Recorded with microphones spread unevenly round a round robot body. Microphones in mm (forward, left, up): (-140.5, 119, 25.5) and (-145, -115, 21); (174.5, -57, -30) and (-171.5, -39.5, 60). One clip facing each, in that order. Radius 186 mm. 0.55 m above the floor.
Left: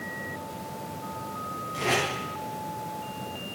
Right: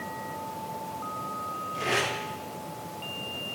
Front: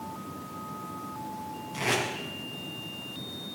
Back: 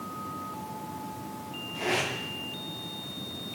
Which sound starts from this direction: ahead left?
Tape being pulled, at 1.7 s.